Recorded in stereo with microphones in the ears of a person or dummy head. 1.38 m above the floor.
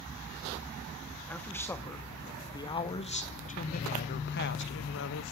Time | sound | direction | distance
1.3 | a man speaking | 10° left (ahead or behind) | 3 m